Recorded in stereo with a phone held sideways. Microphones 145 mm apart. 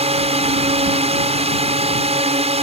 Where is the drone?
40° right (ahead or behind).